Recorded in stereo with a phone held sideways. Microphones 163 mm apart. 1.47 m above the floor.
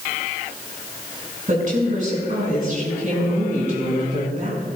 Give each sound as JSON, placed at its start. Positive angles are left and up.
{"t": 1.5, "sound": "a woman speaking", "side_deg": -50, "distance_m": 5.5}